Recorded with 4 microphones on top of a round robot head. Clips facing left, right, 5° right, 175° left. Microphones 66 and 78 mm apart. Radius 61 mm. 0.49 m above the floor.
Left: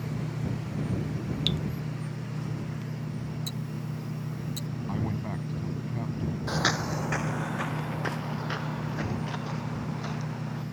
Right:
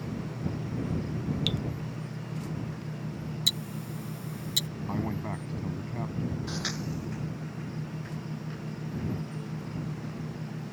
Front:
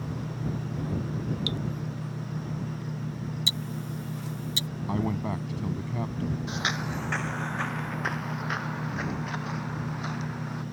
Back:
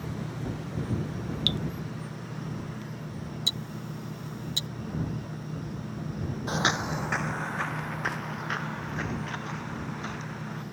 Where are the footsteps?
135° left; by 10.6 s 75° left.